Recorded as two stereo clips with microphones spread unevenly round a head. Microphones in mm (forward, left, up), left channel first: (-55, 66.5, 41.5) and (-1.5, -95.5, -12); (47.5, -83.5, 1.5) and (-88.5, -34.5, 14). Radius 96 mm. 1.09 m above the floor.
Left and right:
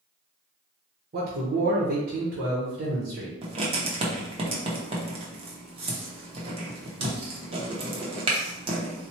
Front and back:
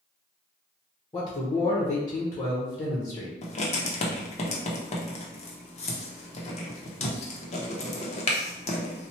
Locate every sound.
1.1 s a man speaking: 75° right, 1.1 m
3.4 s writing: 40° right, 0.8 m